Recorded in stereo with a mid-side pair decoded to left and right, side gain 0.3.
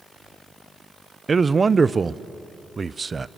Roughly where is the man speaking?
Ahead right.